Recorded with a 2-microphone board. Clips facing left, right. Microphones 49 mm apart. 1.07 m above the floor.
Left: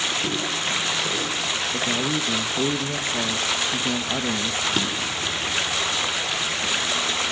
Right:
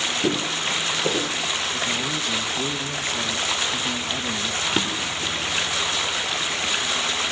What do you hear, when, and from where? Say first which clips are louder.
0.2 s footsteps: right 2 dB; 70° right (ahead or behind), 3.5 m; by 1.3 s 50° right (ahead or behind), 3 m
1.7 s a man speaking: left 2 dB; 25° left (ahead or behind), 1.3 m
4.7 s a drawer: even; 20° right (ahead or behind), 2.0 m